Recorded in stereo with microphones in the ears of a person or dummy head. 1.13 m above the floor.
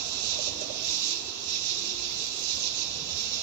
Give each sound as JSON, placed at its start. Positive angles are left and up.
{"t": 0.0, "sound": "an insect", "side_deg": -80, "distance_m": 1.4}